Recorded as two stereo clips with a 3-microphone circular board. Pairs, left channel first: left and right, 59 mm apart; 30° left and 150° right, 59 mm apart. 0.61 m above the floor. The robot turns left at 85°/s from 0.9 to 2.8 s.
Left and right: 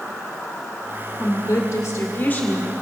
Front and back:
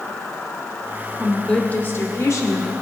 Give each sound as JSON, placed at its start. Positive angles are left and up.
{"t": 0.0, "sound": "an insect", "azimuth_deg": 5, "distance_m": 4.5}
{"t": 1.2, "sound": "a woman speaking", "azimuth_deg": 130, "distance_m": 2.0}